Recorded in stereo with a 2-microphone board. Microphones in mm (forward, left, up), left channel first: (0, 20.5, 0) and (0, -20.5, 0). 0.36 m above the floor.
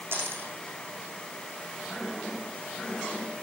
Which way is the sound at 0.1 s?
65° right (ahead or behind).